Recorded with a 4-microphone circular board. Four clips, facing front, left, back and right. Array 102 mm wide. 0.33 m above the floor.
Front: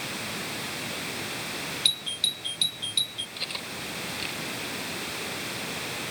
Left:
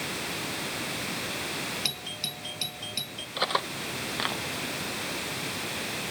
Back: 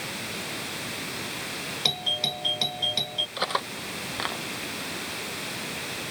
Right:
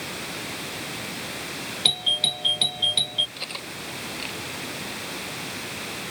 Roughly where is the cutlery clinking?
Behind left.